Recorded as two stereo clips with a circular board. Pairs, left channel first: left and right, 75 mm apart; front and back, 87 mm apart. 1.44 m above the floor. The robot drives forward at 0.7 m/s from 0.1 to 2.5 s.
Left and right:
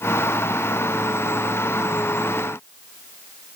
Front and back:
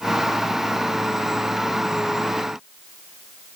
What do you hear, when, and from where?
Only background noise.